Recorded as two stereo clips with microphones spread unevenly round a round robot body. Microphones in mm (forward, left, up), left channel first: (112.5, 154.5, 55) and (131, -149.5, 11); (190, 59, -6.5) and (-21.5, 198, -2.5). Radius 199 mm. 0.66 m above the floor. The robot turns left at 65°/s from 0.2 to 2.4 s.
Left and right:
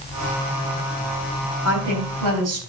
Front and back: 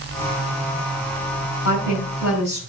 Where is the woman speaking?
45° right, 4.5 m; by 2.6 s 95° right, 4.5 m.